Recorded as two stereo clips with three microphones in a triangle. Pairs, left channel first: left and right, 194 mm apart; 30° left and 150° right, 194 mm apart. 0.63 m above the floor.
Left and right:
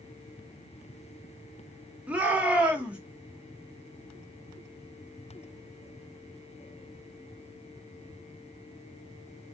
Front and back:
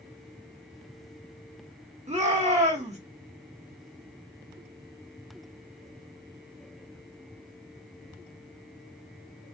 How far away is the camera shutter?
I don't hear a camera shutter.